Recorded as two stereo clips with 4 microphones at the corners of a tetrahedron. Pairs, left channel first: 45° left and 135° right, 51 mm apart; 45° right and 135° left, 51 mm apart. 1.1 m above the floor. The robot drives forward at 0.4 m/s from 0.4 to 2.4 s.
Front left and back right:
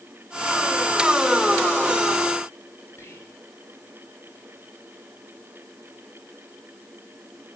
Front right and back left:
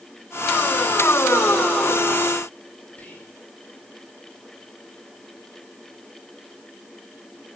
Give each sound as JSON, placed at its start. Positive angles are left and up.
{"t": 3.0, "sound": "whispering", "azimuth_deg": 15, "distance_m": 7.0}